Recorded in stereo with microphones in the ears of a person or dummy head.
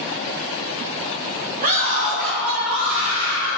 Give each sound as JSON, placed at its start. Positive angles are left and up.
{"t": 1.6, "sound": "a scream", "side_deg": -40, "distance_m": 2.0}